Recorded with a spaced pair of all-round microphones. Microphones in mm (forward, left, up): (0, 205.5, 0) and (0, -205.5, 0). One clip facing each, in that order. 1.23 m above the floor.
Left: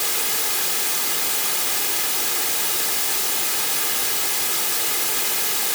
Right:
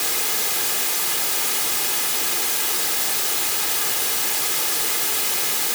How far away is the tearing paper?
I don't hear tearing paper.